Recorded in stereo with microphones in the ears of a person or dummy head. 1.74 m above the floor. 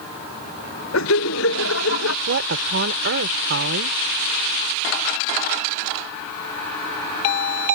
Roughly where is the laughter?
Left.